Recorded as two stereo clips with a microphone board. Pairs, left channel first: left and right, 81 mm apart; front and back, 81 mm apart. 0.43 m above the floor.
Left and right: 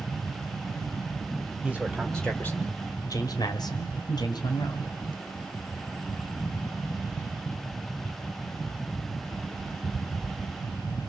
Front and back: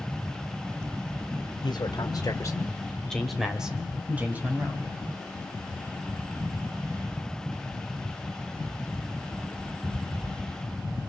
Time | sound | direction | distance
1.6 | a man speaking | 10° right | 2 m